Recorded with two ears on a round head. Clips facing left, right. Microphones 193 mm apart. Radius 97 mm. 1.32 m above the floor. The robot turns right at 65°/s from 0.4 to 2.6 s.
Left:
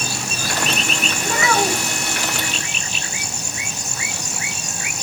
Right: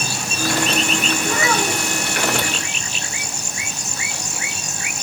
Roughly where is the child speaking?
Left.